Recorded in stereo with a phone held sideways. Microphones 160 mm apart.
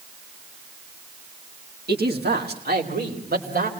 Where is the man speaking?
90° right, 1.6 m; by 3.7 s 70° right (ahead or behind), 4 m.